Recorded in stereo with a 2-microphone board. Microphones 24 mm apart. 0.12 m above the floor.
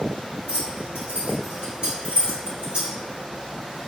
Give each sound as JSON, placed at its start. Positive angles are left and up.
{"t": 0.5, "sound": "keys jangling", "side_deg": -45, "distance_m": 1.6}